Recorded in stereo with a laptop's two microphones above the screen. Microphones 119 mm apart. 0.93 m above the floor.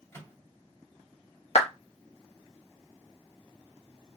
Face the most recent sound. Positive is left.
turn(degrees=65)  # may be behind; listen again after turning